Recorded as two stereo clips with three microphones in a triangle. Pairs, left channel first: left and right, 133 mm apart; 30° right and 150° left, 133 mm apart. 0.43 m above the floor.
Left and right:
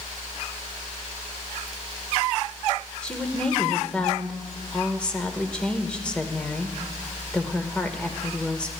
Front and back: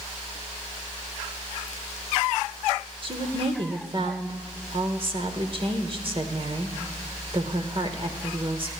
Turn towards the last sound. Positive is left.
turn(degrees=170)